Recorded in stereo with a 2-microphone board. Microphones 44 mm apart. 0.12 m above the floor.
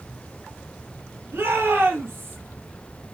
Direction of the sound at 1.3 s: 55° right (ahead or behind).